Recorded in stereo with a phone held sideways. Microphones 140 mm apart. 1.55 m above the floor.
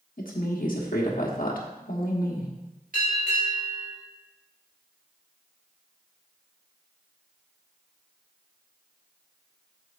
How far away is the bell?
About 3.5 m.